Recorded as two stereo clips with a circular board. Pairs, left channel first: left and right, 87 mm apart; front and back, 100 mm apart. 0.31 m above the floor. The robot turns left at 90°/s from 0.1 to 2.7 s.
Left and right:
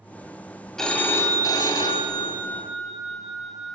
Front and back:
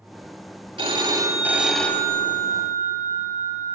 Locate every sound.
0.8 s a phone ringing: 175° left, 1.0 m; by 3.8 s 5° left, 1.0 m